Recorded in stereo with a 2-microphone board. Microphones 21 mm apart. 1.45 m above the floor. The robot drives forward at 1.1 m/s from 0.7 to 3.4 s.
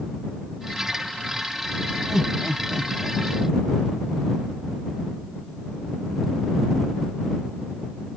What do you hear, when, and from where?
2.1 s laughter: 15° right (ahead or behind); by 3.2 s 20° right (ahead or behind)